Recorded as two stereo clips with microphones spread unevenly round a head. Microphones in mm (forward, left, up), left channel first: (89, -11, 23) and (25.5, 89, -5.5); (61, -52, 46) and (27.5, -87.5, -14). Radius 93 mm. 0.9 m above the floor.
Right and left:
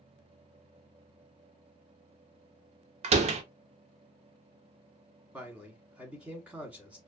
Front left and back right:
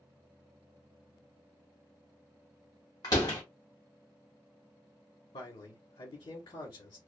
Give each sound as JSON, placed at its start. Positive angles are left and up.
{"t": 3.0, "sound": "a door slam", "azimuth_deg": 125, "distance_m": 0.5}
{"t": 5.3, "sound": "a man speaking", "azimuth_deg": 75, "distance_m": 1.0}